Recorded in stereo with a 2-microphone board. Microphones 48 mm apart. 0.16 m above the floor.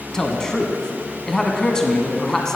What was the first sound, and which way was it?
A man speaking, 15° left (ahead or behind).